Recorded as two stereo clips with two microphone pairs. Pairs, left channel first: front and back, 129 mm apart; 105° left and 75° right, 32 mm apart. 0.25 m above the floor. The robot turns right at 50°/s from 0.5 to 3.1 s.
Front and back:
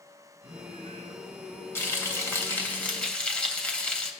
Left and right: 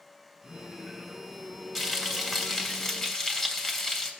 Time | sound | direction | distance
0.4 | singing | 45° right | 3.5 m
1.8 | frying | straight ahead | 1.2 m